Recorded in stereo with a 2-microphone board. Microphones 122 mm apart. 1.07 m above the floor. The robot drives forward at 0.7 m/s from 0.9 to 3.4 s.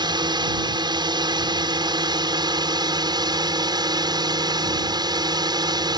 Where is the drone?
35° right (ahead or behind).